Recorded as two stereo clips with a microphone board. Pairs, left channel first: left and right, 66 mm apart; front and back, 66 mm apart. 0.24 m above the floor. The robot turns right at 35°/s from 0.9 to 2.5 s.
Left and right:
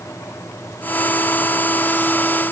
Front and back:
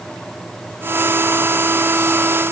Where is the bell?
No bell in this recording.